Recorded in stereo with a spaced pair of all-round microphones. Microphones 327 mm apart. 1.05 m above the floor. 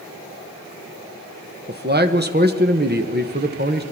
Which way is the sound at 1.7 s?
30° right (ahead or behind).